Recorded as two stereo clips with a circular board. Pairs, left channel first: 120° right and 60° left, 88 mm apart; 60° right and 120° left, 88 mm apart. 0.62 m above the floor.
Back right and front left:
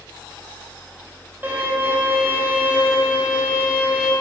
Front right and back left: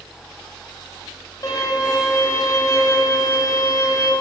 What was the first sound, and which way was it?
A violin, 10° right.